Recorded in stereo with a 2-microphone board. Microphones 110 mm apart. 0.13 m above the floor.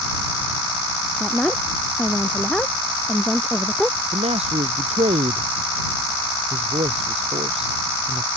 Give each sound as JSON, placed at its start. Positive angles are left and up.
{"t": 1.2, "sound": "a woman speaking", "side_deg": 5}
{"t": 4.1, "sound": "a man speaking", "side_deg": -65}